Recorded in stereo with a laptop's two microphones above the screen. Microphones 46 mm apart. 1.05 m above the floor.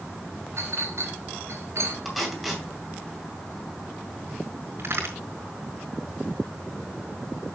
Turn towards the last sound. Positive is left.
turn(degrees=-55)  # may be behind; listen again after turning